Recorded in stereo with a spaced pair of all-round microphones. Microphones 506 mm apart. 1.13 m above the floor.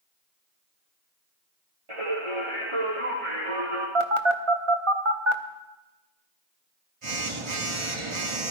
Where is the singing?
80° right, 7.5 m.